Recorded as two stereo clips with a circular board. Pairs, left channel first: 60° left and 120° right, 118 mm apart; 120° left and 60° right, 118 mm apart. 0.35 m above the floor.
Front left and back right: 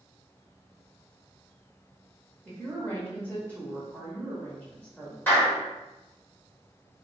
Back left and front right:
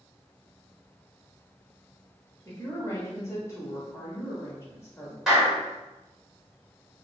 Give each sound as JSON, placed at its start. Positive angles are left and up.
{"t": 2.5, "sound": "a woman speaking", "azimuth_deg": 110, "distance_m": 1.0}
{"t": 5.3, "sound": "a clap", "azimuth_deg": 20, "distance_m": 1.1}